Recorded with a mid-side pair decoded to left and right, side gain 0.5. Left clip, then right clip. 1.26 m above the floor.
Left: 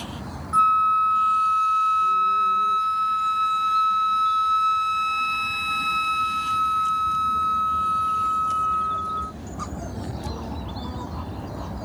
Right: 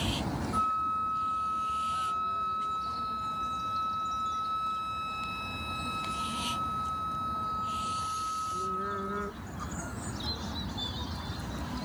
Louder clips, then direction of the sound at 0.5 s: Left 12 dB; 65° left.